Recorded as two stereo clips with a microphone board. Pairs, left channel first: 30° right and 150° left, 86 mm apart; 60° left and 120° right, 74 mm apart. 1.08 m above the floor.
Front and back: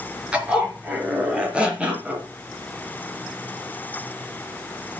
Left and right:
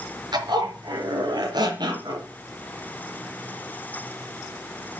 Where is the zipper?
135° right, 4.5 m.